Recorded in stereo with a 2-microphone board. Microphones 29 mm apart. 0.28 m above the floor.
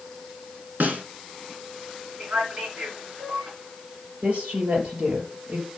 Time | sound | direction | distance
0.8 | a snare drum | 75° right (ahead or behind) | 1.6 m
2.2 | a man speaking | 60° right (ahead or behind) | 4 m
4.2 | a woman speaking | 50° right (ahead or behind) | 5.5 m